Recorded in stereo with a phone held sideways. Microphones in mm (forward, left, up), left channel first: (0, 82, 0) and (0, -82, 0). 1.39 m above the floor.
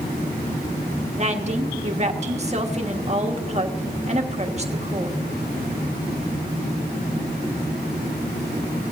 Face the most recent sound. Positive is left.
turn(degrees=-40)  # may be behind; listen again after turning